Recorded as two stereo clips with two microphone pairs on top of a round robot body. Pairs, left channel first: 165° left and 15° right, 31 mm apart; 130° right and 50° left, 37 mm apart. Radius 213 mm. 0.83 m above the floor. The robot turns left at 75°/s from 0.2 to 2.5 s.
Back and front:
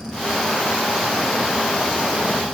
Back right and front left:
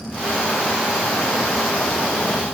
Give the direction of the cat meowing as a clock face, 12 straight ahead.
No cat meowing in this recording.